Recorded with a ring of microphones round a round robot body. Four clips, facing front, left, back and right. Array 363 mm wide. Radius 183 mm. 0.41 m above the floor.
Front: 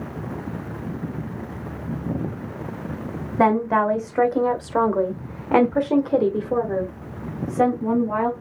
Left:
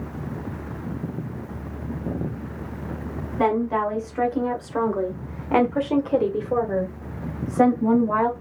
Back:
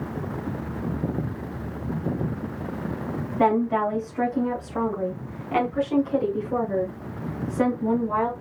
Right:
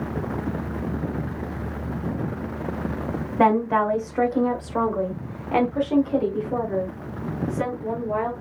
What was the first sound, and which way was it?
A woman speaking, 30° right.